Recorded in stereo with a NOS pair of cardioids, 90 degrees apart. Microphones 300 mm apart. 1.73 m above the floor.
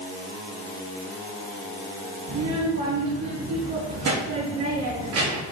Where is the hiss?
No hiss in this recording.